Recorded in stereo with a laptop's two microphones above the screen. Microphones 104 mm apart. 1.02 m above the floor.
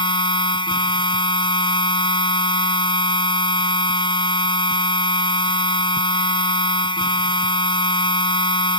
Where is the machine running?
50° left (ahead or behind).